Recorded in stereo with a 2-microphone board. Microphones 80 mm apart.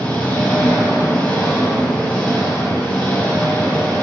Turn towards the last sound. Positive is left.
turn(degrees=20)  # may be behind; listen again after turning